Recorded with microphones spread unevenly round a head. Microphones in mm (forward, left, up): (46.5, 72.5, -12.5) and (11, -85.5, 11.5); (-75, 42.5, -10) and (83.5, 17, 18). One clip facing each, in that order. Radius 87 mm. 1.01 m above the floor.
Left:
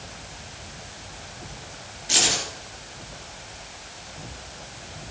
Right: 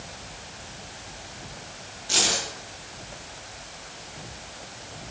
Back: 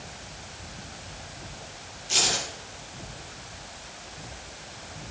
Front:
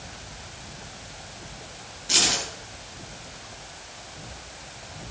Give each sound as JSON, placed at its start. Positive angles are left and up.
{"t": 2.1, "sound": "keys jangling", "azimuth_deg": 5, "distance_m": 10.0}